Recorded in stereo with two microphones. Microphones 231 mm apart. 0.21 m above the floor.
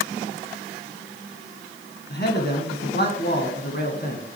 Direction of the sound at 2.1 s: 45° left (ahead or behind).